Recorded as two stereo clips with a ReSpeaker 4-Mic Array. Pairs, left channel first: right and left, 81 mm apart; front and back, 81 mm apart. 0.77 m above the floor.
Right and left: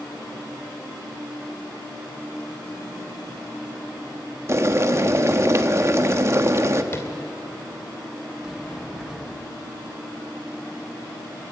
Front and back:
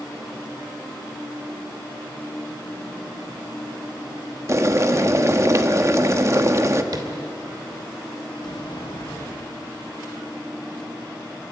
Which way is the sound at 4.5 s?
135° left.